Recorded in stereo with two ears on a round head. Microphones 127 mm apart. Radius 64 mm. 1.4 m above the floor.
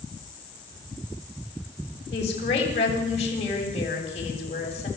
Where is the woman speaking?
45° left (ahead or behind), 7.5 m.